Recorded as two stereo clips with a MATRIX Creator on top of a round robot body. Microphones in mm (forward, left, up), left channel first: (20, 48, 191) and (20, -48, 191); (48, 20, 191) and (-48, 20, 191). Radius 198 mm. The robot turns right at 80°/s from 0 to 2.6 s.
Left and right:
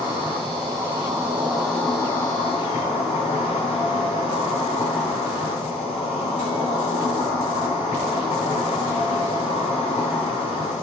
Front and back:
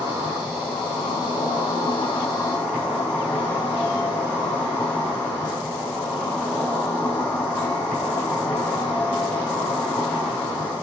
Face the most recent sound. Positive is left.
turn(degrees=75)